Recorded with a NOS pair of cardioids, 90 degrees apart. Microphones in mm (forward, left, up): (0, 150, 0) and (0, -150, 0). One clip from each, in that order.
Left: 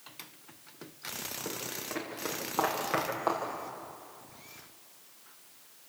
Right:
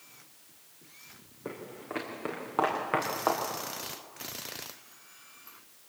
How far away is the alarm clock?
I don't hear an alarm clock.